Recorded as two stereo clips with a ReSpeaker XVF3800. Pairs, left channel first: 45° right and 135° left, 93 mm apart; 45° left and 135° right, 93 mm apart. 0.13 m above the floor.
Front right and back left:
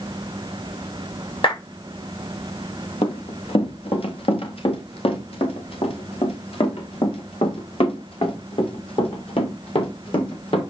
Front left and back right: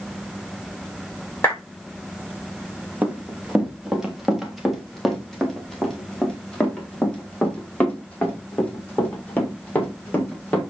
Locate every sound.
1.4 s a clap: 20° right, 8 m
3.0 s running footsteps: 60° right, 3.5 m; by 10.6 s 25° right, 6.5 m